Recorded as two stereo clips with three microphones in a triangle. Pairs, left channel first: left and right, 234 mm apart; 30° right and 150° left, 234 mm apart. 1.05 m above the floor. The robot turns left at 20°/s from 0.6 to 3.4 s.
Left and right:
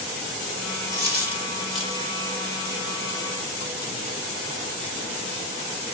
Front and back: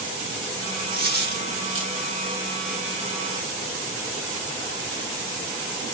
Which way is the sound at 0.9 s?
165° right.